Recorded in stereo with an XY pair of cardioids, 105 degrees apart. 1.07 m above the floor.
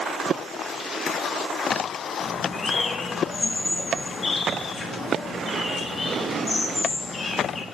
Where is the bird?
25° left, 1.3 m.